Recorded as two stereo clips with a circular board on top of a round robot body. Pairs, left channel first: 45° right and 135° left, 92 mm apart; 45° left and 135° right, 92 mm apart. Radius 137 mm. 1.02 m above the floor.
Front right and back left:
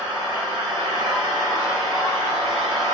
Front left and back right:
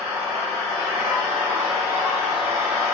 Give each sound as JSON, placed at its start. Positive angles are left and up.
{"t": 0.0, "sound": "an engine running", "azimuth_deg": -135, "distance_m": 1.7}